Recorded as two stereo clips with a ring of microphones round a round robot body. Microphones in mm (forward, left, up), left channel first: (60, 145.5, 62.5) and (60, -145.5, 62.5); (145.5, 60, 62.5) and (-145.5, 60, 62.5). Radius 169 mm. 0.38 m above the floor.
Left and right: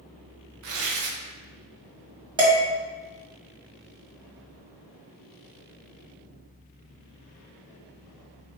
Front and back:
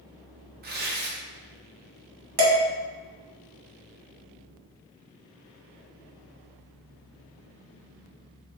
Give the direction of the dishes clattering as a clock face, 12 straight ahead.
5 o'clock.